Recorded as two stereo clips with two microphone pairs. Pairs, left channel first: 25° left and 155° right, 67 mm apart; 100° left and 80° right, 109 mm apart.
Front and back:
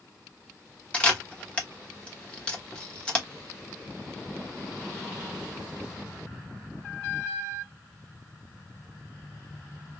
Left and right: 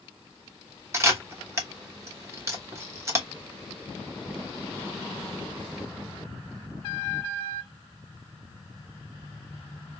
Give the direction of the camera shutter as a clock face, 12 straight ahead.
1 o'clock.